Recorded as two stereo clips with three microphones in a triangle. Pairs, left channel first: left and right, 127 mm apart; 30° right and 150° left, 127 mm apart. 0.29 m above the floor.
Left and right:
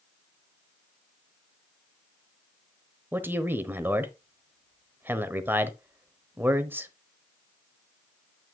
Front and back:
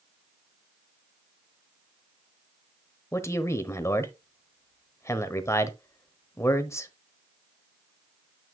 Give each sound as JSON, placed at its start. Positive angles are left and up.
{"t": 3.1, "sound": "a man speaking", "azimuth_deg": -45, "distance_m": 0.9}